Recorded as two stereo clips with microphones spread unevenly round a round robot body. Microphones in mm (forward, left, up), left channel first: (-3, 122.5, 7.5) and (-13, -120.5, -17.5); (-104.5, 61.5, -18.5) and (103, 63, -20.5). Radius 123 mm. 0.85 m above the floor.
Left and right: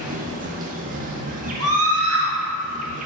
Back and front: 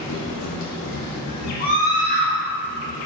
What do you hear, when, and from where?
0.0 s an insect: 150° right, 0.7 m
1.6 s a scream: 120° right, 2 m